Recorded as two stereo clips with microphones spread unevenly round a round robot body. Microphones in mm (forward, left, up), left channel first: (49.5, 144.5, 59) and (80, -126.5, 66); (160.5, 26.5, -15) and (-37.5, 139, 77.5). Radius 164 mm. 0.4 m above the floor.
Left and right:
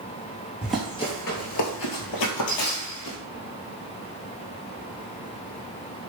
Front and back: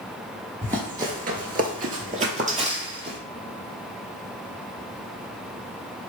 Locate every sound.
0.6 s running footsteps: 165° right, 0.5 m; by 3.2 s 90° left, 1.2 m